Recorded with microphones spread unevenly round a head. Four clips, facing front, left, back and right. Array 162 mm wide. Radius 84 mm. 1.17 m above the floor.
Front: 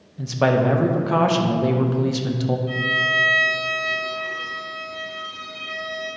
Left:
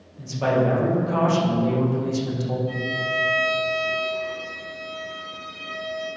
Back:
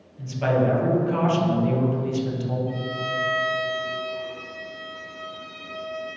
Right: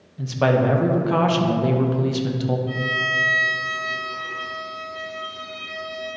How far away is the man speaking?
About 1.2 m.